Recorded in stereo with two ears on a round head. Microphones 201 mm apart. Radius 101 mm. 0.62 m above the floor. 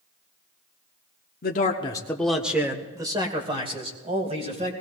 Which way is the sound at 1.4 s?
45° left (ahead or behind).